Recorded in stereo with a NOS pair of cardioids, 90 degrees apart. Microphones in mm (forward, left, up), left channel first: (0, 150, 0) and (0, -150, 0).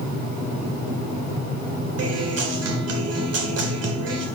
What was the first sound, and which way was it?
A guitar, 50° right.